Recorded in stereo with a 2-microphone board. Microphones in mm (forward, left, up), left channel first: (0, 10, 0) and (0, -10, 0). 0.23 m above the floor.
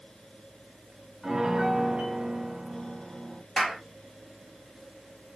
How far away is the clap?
About 3 m.